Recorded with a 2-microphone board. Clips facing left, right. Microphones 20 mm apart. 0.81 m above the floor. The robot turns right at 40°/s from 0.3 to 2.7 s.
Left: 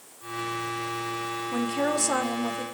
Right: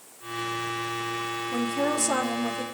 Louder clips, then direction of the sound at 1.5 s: Even; 150° left.